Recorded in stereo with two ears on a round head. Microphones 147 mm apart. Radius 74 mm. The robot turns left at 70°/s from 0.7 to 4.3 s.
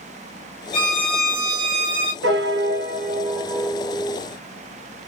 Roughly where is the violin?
Ahead left.